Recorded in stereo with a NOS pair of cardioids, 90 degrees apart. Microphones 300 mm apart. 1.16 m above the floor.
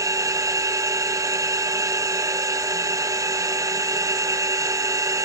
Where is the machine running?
10° right, 0.8 m.